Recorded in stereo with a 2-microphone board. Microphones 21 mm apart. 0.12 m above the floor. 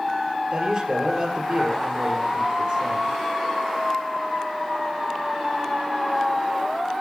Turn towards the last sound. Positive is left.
turn(degrees=-25)  # may be behind; listen again after turning